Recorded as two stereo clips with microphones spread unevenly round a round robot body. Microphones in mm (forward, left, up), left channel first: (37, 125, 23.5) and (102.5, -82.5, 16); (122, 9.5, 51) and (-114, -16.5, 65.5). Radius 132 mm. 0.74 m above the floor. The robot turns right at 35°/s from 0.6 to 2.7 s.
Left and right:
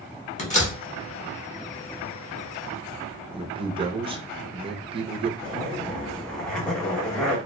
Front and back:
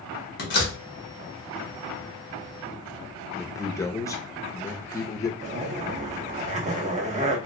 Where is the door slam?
50° left, 1.4 m; by 0.8 s 55° left, 1.4 m.